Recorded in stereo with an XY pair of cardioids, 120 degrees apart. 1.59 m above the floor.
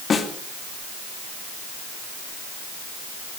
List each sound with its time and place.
0.1 s a snare drum: 40° left, 2 m